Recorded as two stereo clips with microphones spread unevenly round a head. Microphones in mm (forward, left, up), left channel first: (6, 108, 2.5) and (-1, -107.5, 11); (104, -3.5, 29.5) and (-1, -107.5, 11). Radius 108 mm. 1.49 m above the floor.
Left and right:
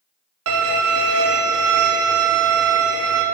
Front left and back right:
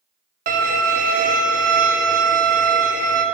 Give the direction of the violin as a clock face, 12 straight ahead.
4 o'clock.